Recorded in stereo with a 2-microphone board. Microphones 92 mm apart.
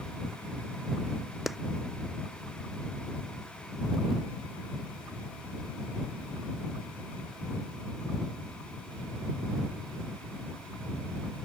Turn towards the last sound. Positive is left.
turn(degrees=0)  # may be behind; listen again after turning